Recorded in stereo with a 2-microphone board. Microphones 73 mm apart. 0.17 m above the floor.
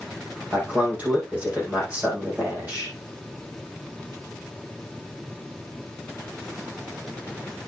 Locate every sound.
0.5 s a man speaking: 20° right (ahead or behind), 6.5 m